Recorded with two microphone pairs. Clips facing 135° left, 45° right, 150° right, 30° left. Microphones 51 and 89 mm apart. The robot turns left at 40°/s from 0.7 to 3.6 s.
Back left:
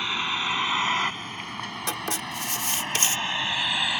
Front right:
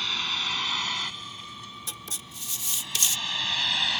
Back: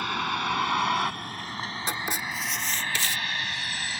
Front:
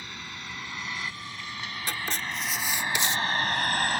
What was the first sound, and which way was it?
A vehicle, 155° right.